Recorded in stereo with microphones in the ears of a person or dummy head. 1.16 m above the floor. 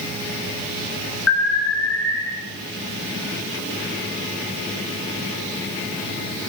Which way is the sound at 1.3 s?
85° left.